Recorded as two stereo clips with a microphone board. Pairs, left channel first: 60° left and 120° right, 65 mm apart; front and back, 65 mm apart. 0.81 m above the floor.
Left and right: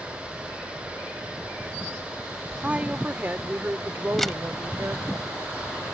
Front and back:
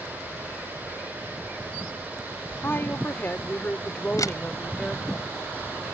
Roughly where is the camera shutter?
Ahead right.